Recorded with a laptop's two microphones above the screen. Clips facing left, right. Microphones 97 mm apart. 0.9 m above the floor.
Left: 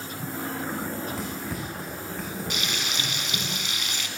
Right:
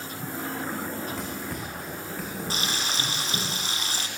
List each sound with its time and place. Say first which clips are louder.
0.7 s running footsteps: left 1 dB; 5° left (ahead or behind), 6 m; by 3.5 s 10° right (ahead or behind), 5 m
2.5 s frying: right 1 dB; 35° right (ahead or behind), 3 m